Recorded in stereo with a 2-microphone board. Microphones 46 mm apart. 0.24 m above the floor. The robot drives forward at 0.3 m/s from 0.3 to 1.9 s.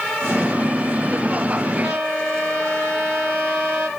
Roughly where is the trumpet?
Right.